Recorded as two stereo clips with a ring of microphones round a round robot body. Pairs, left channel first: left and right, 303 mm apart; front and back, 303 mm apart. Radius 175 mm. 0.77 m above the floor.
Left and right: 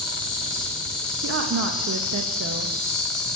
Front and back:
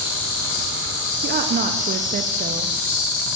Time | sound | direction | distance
0.0 | an insect | straight ahead | 1.4 m
1.2 | a woman speaking | 125° right | 0.6 m